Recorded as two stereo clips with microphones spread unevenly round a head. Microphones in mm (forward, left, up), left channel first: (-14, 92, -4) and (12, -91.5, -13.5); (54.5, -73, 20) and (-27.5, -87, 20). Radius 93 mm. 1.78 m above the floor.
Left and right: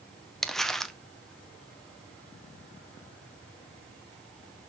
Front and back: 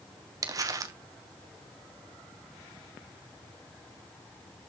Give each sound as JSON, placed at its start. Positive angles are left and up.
{"t": 0.4, "sound": "crumpling", "azimuth_deg": 180, "distance_m": 0.7}